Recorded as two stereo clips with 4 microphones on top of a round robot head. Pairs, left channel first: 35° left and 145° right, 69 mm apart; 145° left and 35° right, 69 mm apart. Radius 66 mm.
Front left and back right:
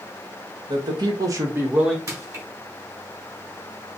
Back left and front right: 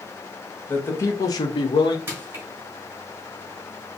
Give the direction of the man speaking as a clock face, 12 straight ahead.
5 o'clock.